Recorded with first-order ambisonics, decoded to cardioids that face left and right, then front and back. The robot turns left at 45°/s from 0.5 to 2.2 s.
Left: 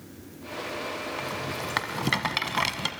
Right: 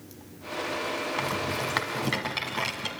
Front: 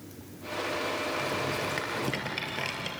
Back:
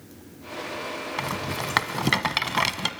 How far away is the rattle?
About 1.9 m.